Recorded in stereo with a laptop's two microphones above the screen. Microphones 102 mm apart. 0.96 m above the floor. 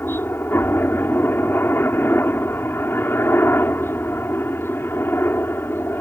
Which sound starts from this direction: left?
A helicopter, at 0.0 s.